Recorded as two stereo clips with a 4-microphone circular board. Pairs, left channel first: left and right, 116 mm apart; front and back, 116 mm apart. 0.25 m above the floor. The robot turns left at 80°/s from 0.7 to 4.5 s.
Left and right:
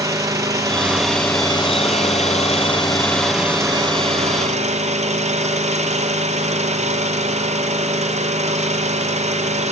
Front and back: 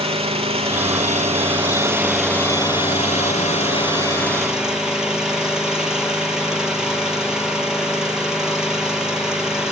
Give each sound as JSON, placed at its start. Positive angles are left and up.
{"t": 0.0, "sound": "an engine running", "azimuth_deg": -150, "distance_m": 3.5}